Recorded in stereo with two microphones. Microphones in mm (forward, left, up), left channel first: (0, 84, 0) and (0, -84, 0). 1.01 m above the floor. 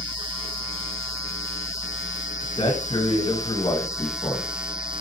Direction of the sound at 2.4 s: 30° left (ahead or behind).